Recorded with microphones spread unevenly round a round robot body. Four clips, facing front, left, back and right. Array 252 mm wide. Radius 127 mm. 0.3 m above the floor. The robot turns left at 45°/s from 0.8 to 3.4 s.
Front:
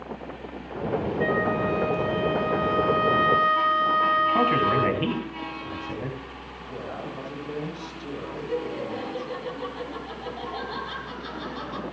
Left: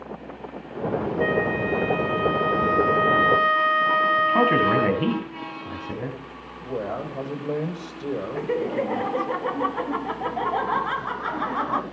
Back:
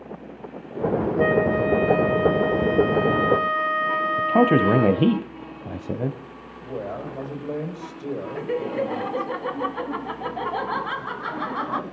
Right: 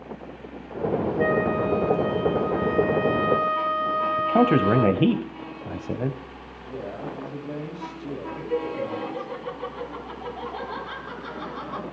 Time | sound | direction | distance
1.2 | a flute | 170° right | 3.5 m
4.2 | a man speaking | 150° right | 2 m
6.6 | a man speaking | 95° left | 9 m
8.3 | laughter | 115° left | 1.9 m